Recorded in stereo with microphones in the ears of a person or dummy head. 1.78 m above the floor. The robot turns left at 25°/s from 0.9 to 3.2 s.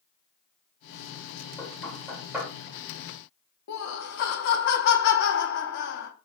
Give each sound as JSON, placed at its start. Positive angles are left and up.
{"t": 1.6, "sound": "knocking", "side_deg": 20, "distance_m": 1.6}
{"t": 3.7, "sound": "laughter", "side_deg": 50, "distance_m": 0.7}